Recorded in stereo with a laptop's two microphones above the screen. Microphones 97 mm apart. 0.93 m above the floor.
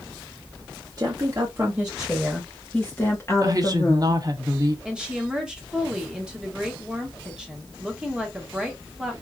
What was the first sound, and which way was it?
A woman speaking, 35° right (ahead or behind).